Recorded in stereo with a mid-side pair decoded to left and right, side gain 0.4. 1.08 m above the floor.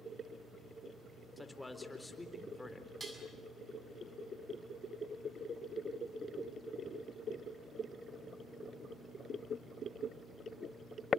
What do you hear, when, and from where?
1.4 s a man speaking: 15° left, 4 m
3.0 s dishes clattering: 30° right, 6.5 m